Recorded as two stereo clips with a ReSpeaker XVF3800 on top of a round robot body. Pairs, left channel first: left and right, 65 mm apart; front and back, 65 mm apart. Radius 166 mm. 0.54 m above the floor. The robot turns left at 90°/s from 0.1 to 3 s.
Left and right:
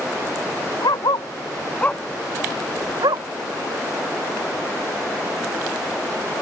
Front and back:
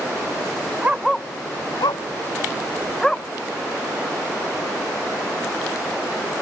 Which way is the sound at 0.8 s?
115° left.